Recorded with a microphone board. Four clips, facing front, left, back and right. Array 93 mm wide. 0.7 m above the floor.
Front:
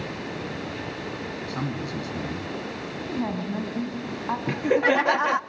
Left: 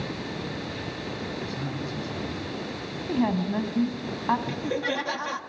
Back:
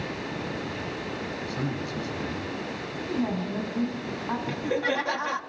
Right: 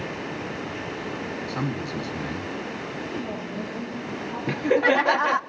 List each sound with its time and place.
1.5 s a man speaking: 60° right, 5 m
3.0 s a woman speaking: 75° left, 4.5 m
4.5 s laughter: 55° right, 0.8 m